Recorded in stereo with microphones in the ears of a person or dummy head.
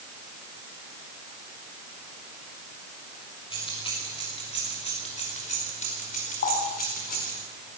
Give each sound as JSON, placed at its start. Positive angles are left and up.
{"t": 3.5, "sound": "keys jangling", "side_deg": 30, "distance_m": 6.5}
{"t": 6.4, "sound": "a running tap", "side_deg": 55, "distance_m": 9.0}